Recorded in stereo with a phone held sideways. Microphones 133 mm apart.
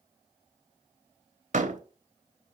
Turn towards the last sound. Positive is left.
turn(degrees=-65)  # may be behind; listen again after turning